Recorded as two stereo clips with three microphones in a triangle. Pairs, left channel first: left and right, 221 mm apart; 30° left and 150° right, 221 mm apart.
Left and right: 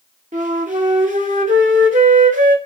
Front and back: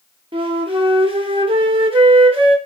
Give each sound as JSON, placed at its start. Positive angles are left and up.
{"t": 0.3, "sound": "a flute", "azimuth_deg": -100, "distance_m": 0.7}